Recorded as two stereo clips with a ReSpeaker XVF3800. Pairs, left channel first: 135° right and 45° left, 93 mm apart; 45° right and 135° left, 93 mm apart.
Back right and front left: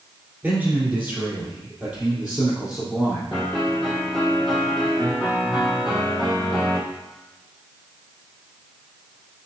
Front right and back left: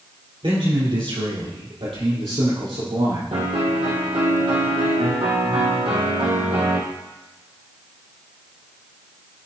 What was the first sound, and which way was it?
A man speaking, 115° left.